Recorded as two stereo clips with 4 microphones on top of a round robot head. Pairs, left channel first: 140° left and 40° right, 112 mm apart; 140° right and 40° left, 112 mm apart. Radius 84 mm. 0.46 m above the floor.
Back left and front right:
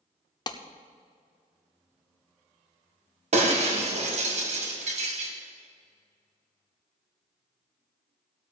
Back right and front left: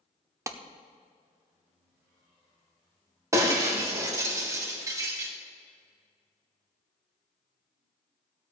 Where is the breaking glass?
20° right, 2 m.